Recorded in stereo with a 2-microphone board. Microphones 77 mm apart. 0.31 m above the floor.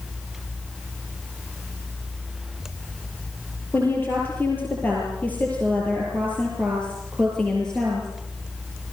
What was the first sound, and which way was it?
A woman speaking, 25° left (ahead or behind).